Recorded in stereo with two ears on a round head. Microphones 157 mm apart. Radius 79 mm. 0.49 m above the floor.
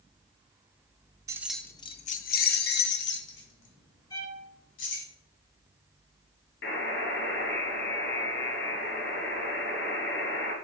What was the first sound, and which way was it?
Keys jangling, 20° right (ahead or behind).